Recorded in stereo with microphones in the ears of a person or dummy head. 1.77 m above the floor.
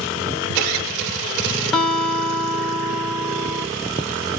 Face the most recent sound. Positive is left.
turn(degrees=0)  # may be behind; listen again after turning